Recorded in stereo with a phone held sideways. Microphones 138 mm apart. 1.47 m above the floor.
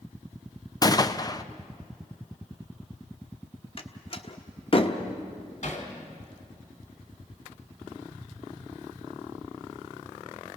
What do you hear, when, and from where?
0.8 s a gunshot: 25° left (ahead or behind), 0.6 m
3.8 s a door slam: 40° left (ahead or behind), 1.1 m
5.6 s hammering: 55° left (ahead or behind), 3 m